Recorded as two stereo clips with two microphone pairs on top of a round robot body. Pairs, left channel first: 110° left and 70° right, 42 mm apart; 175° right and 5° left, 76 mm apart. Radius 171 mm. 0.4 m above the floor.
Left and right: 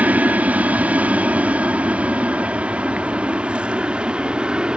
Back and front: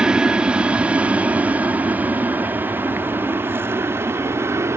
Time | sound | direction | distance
0.0 | an aircraft | 60° right | ?